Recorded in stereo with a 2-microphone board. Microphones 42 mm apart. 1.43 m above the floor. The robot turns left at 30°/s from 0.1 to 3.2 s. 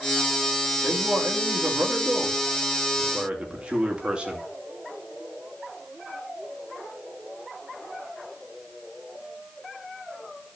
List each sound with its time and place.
0.8 s a man speaking: 85° right, 2.5 m; by 4.4 s 155° right, 2.5 m